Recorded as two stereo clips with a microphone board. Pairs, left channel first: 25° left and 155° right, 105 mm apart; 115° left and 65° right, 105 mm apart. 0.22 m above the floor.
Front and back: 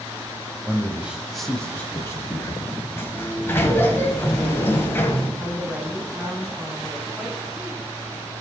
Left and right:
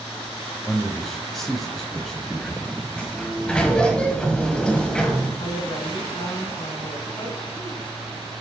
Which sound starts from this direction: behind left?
A woman speaking, at 5.4 s.